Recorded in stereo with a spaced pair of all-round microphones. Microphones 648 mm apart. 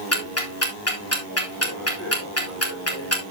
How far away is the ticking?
About 2.5 m.